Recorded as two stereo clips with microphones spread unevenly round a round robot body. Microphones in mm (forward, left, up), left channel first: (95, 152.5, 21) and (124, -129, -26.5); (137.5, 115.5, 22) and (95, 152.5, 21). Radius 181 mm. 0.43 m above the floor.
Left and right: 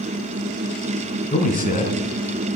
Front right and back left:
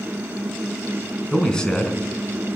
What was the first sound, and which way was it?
A man speaking, 35° left.